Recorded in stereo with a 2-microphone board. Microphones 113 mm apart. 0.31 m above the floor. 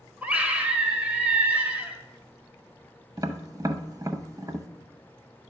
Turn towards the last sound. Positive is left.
turn(degrees=-30)  # may be behind; listen again after turning